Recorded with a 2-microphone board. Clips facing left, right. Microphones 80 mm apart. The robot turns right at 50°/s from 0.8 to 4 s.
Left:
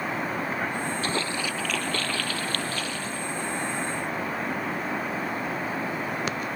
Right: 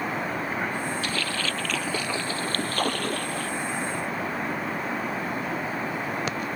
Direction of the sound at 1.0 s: 145° left.